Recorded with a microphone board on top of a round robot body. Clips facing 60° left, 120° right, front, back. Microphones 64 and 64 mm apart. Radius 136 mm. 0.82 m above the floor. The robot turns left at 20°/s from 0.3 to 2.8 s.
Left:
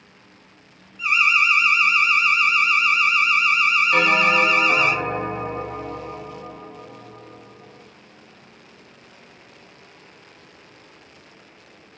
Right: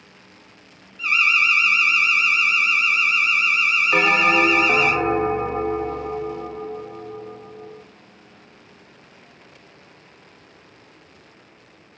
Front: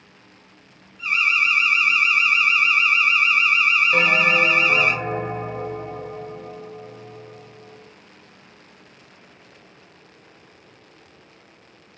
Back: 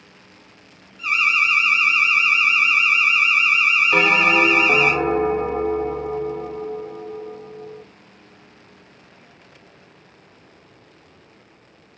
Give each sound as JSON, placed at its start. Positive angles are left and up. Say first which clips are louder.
{"t": 1.0, "sound": "an alarm", "louder": "left 1 dB, back 1 dB", "azimuth_deg": 140, "distance_m": 1.9}
{"t": 3.9, "sound": "a bell", "louder": "right 2 dB, back 4 dB", "azimuth_deg": 180, "distance_m": 2.5}